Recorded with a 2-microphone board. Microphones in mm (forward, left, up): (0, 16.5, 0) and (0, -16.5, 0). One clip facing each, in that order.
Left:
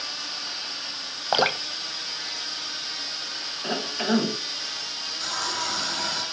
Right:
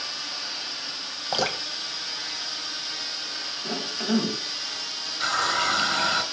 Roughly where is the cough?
Left.